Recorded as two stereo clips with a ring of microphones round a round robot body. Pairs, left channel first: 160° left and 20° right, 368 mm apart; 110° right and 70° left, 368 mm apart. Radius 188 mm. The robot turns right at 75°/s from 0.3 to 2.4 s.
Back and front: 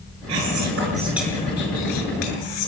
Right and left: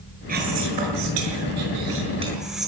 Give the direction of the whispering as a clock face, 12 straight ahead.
12 o'clock.